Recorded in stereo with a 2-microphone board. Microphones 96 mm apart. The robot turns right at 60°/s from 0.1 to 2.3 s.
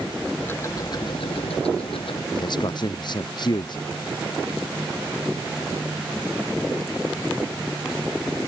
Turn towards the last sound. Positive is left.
turn(degrees=50)  # may be behind; listen again after turning